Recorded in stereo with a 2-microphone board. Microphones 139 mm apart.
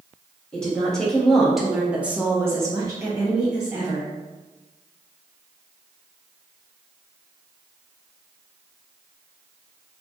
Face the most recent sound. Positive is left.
turn(degrees=-20)  # may be behind; listen again after turning